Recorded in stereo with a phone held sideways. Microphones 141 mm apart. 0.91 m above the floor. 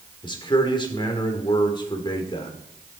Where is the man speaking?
35° left (ahead or behind), 2.5 m.